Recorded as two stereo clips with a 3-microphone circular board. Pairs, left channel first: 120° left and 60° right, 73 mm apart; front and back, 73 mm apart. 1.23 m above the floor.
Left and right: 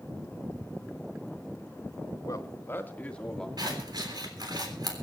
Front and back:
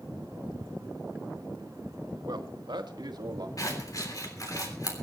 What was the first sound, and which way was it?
A man speaking, 155° left.